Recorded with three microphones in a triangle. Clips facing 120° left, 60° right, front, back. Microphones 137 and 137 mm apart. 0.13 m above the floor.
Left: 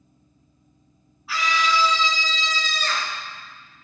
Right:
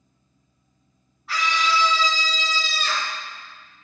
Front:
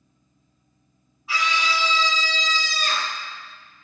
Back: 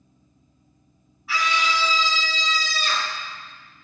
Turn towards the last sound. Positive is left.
turn(degrees=15)